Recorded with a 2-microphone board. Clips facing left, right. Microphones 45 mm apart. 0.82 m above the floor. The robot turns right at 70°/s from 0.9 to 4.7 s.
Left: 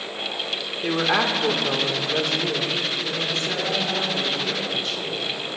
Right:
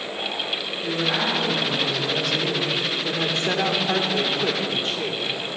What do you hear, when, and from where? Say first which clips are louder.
0.8 s a woman speaking: left 3 dB; 50° left, 1.9 m; by 5.2 s 45° right, 1.9 m